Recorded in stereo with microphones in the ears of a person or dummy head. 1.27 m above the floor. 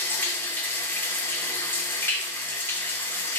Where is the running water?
15° left (ahead or behind), 0.8 m.